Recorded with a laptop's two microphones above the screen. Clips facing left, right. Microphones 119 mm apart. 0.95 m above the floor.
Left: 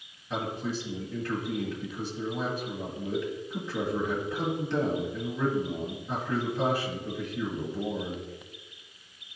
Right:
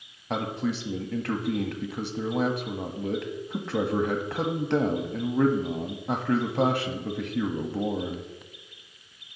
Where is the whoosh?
No whoosh in this recording.